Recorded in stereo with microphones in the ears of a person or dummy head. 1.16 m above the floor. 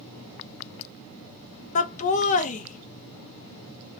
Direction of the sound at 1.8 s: 40° left (ahead or behind).